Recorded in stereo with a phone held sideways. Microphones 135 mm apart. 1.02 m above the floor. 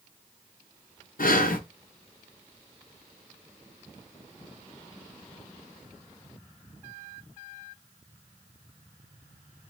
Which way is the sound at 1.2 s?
75° left (ahead or behind).